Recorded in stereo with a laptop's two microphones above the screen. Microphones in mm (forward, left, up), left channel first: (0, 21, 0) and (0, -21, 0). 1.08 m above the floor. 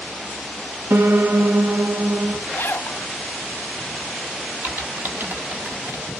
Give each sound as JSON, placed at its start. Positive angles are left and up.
{"t": 0.9, "sound": "a piano", "side_deg": -65, "distance_m": 0.7}
{"t": 2.5, "sound": "a zipper", "side_deg": 70, "distance_m": 0.9}
{"t": 4.6, "sound": "typing on a keyboard", "side_deg": -55, "distance_m": 1.1}